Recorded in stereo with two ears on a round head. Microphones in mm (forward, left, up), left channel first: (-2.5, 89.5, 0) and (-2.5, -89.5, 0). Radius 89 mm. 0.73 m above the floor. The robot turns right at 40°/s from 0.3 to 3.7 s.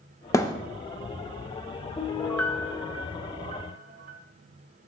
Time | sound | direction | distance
0.3 | a thud | 15° left (ahead or behind) | 0.5 m
2.0 | a piano | 155° left | 0.7 m